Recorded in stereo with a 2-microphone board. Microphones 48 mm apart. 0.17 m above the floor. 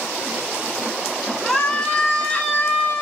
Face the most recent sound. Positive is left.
turn(degrees=35)  # may be behind; listen again after turning